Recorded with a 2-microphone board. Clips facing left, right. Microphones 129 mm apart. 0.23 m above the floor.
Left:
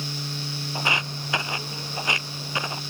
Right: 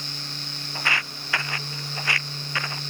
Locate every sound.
0.8 s footsteps: 20° left (ahead or behind)